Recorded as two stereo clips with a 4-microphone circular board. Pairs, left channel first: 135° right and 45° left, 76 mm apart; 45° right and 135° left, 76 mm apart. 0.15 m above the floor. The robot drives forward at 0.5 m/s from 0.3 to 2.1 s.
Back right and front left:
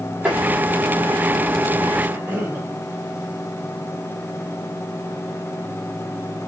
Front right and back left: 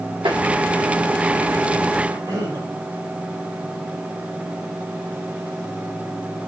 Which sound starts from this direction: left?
A cough, at 2.0 s.